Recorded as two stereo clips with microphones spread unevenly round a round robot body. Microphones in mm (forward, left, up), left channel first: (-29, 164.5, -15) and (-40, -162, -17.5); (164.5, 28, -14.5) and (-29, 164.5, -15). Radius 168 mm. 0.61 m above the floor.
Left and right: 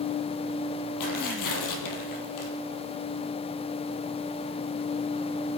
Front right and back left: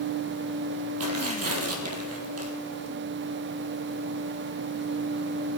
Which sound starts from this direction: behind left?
Tearing paper, at 1.0 s.